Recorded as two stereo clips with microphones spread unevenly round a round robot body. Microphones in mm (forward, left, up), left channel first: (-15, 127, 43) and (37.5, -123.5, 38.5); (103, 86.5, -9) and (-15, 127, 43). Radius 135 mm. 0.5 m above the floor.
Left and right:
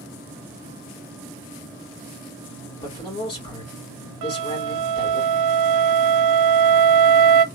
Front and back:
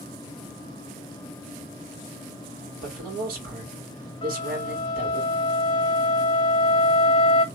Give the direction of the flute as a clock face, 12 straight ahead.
2 o'clock.